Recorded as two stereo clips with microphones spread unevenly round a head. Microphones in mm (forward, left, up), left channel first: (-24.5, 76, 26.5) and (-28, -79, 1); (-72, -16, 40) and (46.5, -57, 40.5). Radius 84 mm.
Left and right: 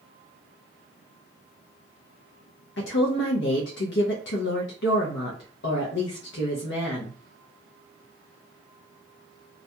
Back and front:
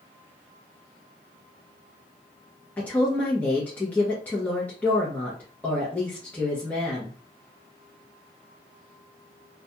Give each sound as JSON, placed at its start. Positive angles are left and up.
{"t": 2.8, "sound": "a woman speaking", "azimuth_deg": 85, "distance_m": 0.6}